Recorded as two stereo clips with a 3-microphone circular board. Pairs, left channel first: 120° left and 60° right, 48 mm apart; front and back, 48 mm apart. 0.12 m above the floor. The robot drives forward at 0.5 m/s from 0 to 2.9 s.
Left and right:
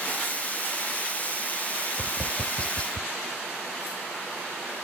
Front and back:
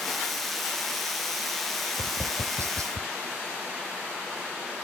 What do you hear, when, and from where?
2.0 s tapping: 170° right; by 3.1 s 175° right